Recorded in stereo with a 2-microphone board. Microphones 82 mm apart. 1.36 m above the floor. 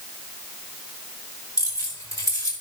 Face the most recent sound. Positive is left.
turn(degrees=40)  # may be behind; listen again after turning